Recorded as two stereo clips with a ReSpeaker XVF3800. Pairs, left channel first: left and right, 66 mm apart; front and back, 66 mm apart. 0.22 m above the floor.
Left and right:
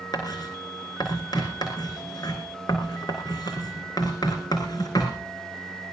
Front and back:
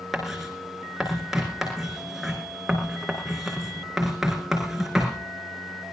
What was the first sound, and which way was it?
Writing, 90° left.